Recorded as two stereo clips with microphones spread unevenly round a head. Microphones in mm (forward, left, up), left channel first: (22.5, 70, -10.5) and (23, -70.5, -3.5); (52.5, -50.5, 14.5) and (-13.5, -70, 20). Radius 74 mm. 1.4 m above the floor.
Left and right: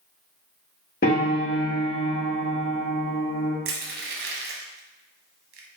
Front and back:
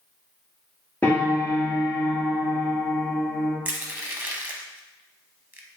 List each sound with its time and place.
1.0 s a piano: 95° left, 1.4 m
3.6 s crushing: 105° right, 0.8 m